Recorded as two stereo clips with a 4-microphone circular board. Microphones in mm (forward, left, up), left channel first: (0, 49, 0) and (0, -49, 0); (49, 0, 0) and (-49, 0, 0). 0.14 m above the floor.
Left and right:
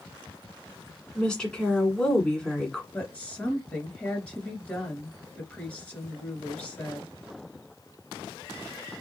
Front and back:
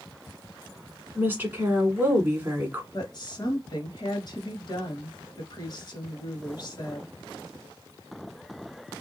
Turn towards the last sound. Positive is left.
turn(degrees=20)